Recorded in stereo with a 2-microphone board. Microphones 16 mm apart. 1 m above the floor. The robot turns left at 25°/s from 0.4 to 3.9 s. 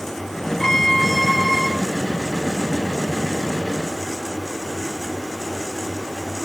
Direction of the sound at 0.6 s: 30° left (ahead or behind).